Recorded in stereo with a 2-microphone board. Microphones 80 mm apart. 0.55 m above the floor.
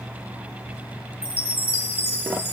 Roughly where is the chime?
Left.